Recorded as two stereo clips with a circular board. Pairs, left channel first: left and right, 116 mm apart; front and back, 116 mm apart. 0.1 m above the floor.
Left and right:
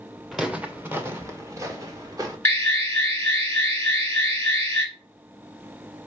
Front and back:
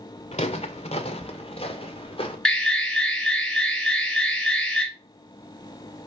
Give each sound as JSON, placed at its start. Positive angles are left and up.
{"t": 0.3, "sound": "footsteps", "azimuth_deg": 0, "distance_m": 0.7}
{"t": 2.5, "sound": "an alarm", "azimuth_deg": 75, "distance_m": 1.4}